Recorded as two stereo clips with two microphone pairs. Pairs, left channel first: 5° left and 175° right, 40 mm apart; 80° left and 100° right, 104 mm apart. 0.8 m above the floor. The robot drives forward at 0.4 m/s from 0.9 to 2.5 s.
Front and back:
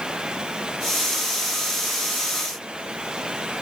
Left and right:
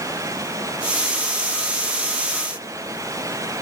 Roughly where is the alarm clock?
I don't hear an alarm clock.